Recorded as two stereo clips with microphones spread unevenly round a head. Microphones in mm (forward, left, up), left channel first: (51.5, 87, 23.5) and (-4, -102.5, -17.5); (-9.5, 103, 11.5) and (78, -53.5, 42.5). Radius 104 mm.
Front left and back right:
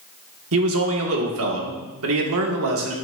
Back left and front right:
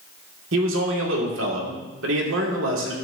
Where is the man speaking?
90° right, 1.8 m.